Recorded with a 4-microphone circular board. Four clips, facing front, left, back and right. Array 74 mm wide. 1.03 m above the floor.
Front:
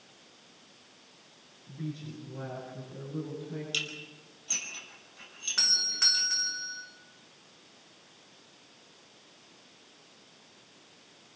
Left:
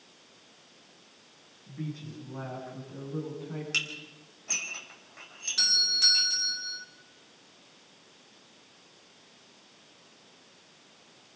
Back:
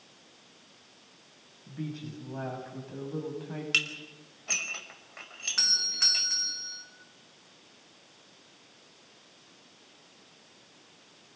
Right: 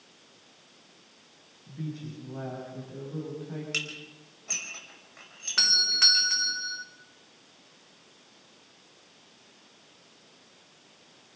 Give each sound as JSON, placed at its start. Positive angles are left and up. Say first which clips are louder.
{"t": 1.7, "sound": "a woman speaking", "louder": "right 1 dB, back 1 dB", "azimuth_deg": -175, "distance_m": 7.0}
{"t": 3.7, "sound": "dishes clattering", "louder": "left 1 dB, back 6 dB", "azimuth_deg": -175, "distance_m": 4.0}
{"t": 5.6, "sound": "a doorbell", "louder": "right 4 dB, front 2 dB", "azimuth_deg": -90, "distance_m": 1.6}